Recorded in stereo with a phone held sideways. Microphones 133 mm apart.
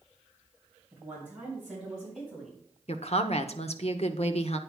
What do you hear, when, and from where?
0.9 s a woman speaking: 10° right (ahead or behind), 6 m; by 2.6 s 10° left (ahead or behind), 6.5 m
2.9 s a woman speaking: 55° left (ahead or behind), 0.9 m